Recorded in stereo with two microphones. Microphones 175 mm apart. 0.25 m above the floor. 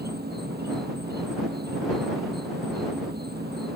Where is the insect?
65° right (ahead or behind).